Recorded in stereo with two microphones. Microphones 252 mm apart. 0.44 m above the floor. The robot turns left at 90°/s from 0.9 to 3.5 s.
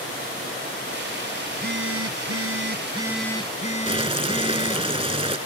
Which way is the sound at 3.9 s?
25° right (ahead or behind).